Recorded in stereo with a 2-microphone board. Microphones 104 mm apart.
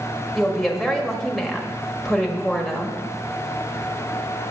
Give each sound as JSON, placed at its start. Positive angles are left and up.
{"t": 0.3, "sound": "a woman speaking", "side_deg": 0, "distance_m": 1.5}